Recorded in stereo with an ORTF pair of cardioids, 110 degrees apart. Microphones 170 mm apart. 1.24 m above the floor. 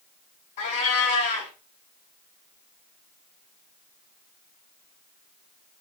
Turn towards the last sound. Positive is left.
turn(degrees=55)